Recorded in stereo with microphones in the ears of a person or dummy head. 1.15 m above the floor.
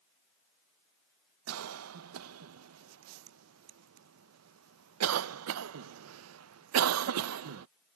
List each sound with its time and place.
1.5 s a cough: 85° right